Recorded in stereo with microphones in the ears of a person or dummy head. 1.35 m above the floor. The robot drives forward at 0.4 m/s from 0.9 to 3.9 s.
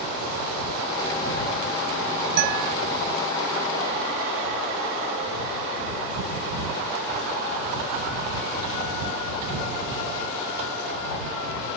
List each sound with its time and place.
2.4 s a guitar: 60° right (ahead or behind)